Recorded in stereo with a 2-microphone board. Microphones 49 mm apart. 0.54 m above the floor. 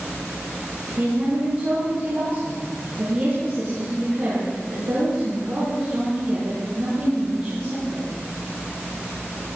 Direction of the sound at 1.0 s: 50° right (ahead or behind).